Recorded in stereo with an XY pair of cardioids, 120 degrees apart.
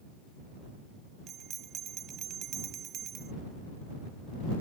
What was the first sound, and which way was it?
A bell, 55° right.